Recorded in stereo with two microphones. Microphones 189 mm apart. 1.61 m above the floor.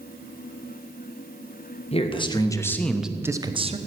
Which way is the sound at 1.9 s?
30° left (ahead or behind).